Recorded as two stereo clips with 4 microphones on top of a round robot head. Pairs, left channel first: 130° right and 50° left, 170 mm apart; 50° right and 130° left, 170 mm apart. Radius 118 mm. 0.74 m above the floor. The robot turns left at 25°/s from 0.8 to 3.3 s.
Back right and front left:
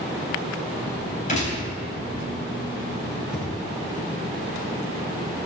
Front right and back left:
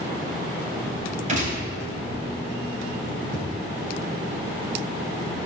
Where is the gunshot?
Straight behind, 4 m; by 1.6 s 175° left, 4 m.